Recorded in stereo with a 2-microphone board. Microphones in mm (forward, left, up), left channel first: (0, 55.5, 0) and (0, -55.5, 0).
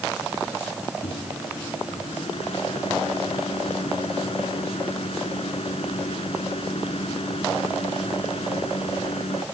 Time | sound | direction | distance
1.0 | a microwave | 60° left (ahead or behind) | ?